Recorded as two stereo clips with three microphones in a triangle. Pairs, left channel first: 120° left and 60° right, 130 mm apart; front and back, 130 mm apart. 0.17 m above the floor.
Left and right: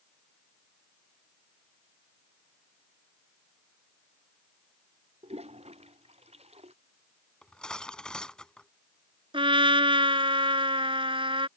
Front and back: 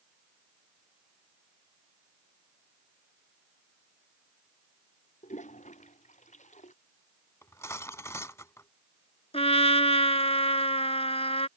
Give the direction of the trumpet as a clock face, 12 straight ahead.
1 o'clock.